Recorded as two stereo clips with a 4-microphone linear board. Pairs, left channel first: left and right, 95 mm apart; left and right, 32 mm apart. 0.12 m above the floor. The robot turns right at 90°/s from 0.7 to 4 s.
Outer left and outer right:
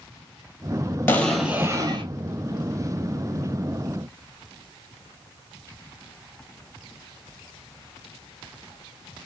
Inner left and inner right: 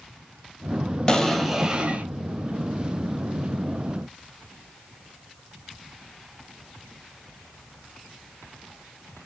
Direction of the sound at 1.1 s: 155° left.